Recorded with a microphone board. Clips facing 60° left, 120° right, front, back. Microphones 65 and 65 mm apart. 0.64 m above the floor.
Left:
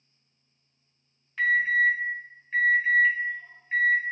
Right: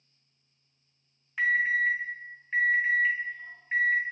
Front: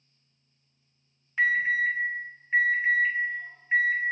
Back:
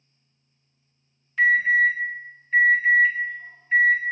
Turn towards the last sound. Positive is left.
turn(degrees=-50)